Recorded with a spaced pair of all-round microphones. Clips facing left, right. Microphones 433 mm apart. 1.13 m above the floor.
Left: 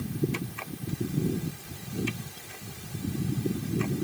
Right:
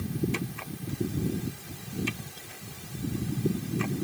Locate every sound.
Only background noise.